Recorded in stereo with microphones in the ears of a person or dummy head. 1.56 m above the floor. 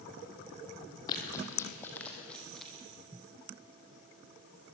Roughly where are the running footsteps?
Centre.